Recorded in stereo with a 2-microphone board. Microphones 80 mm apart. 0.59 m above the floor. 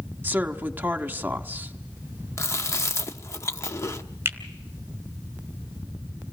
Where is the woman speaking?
25° right (ahead or behind), 1.2 m.